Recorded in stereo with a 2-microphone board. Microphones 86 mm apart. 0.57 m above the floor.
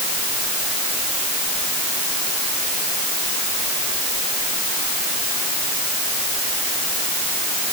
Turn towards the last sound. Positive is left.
No sound to turn to.